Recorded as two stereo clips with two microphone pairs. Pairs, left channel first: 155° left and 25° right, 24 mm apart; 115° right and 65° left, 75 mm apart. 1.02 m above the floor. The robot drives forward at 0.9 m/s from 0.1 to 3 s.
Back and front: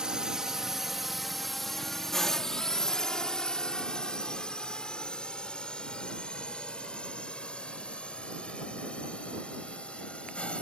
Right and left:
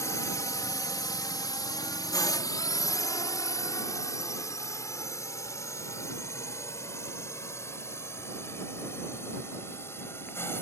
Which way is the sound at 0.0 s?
75° right.